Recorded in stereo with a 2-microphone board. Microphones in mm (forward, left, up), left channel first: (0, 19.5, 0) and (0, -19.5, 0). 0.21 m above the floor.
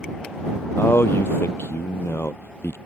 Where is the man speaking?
80° left.